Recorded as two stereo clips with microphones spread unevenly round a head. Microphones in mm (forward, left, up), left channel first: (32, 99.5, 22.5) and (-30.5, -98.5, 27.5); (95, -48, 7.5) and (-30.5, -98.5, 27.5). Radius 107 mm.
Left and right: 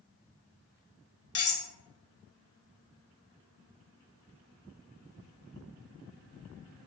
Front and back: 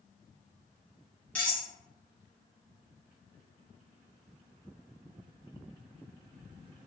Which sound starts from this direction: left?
Cutlery clinking, at 1.4 s.